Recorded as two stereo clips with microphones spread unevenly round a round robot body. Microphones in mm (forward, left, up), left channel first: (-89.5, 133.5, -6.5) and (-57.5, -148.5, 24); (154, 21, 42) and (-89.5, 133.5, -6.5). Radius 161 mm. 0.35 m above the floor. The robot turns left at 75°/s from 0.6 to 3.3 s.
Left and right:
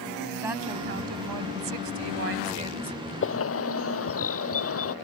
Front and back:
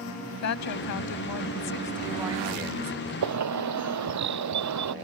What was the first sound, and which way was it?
A woman speaking, straight ahead.